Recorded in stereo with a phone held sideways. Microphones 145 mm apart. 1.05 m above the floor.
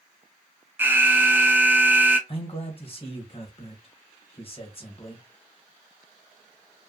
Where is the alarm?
15° right (ahead or behind), 0.7 m.